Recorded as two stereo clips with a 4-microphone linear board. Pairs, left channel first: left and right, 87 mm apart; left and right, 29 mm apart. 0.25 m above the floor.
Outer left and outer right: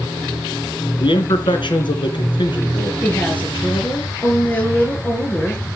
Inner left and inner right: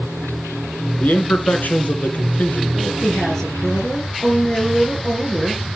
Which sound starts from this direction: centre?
A woman speaking, at 3.0 s.